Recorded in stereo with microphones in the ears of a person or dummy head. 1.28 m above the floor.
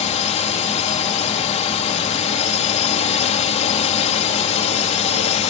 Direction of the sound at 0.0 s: 30° left (ahead or behind).